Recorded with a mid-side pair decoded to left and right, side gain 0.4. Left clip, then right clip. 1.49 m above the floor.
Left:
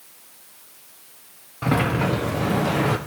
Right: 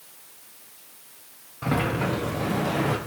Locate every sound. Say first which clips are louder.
1.6 s a sliding door: left 4 dB; 30° left, 0.8 m